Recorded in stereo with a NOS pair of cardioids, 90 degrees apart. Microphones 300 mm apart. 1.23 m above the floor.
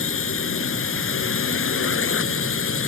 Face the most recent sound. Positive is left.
turn(degrees=45)